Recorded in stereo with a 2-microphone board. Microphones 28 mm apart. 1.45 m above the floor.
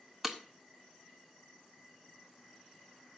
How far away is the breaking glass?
About 0.9 m.